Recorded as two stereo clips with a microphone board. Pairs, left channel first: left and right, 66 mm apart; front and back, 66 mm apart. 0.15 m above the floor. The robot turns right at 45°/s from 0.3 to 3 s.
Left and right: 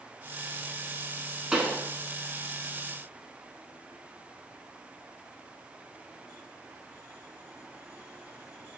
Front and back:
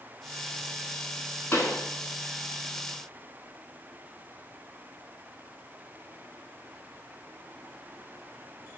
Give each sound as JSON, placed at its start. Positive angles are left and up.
{"t": 1.5, "sound": "a pop", "azimuth_deg": -20, "distance_m": 0.7}